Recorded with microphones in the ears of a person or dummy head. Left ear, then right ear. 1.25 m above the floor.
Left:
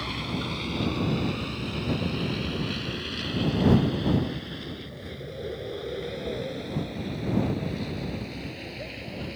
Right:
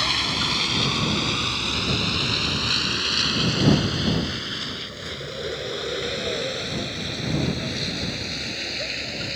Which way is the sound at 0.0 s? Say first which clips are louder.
Right 10 dB; 55° right (ahead or behind).